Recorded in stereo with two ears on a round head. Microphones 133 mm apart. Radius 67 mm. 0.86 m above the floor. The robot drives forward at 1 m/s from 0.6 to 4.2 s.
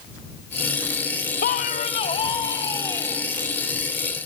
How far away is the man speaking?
About 0.8 m.